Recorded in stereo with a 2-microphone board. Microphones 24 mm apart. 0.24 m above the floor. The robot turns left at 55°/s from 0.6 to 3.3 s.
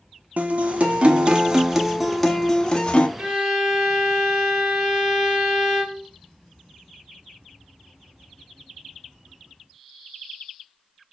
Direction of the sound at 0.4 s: 95° right.